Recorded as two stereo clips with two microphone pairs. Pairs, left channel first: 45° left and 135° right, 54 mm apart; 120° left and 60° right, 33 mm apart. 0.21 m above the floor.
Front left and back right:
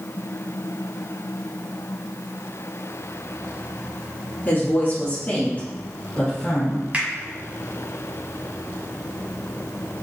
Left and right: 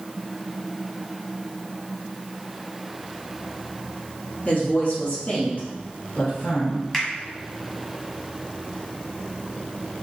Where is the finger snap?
170° right, 1.5 m.